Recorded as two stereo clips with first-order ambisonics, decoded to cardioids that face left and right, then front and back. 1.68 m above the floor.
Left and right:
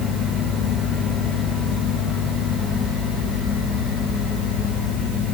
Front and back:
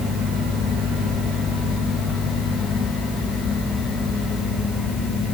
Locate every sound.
Only background noise.